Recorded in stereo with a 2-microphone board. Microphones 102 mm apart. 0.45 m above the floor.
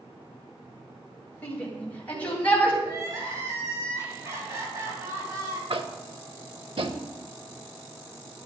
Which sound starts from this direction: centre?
A shout, at 1.4 s.